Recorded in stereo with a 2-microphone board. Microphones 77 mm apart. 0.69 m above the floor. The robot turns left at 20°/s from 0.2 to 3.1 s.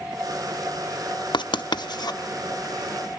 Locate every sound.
1.3 s writing: 75° left (ahead or behind), 0.6 m; by 2.2 s 60° left (ahead or behind), 0.6 m